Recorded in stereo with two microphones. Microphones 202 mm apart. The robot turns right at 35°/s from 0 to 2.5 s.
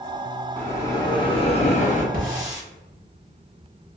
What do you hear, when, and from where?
0.6 s a bell: 15° left, 0.7 m; by 2.0 s 65° left, 0.7 m
2.1 s a hiss: 45° right (ahead or behind), 1.1 m; by 2.6 s 35° right (ahead or behind), 1.1 m